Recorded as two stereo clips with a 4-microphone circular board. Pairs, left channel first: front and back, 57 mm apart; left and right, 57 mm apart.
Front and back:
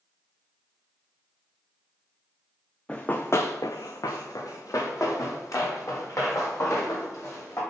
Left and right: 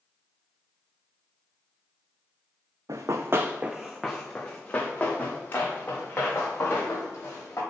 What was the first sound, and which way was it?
Running footsteps, 75° right.